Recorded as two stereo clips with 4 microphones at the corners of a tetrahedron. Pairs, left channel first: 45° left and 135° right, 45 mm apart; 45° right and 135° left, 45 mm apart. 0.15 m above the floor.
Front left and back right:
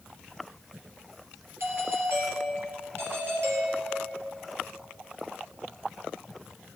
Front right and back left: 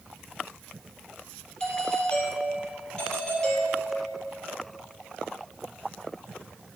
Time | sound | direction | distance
1.6 | a doorbell | 115° right | 4 m